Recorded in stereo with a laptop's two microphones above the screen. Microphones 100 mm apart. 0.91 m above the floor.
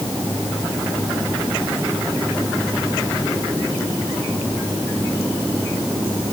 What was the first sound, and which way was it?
Only background noise.